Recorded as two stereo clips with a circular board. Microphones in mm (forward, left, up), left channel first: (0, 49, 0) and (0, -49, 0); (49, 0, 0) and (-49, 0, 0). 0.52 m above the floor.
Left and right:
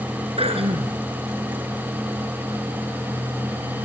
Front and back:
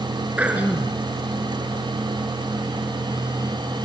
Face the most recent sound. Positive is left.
turn(degrees=-105)